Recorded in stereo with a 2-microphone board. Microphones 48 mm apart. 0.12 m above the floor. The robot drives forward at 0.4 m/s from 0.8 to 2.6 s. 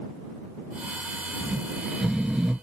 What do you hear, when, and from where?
1.4 s snoring: 15° right (ahead or behind), 1.6 m; by 2.5 s 10° right (ahead or behind), 1.8 m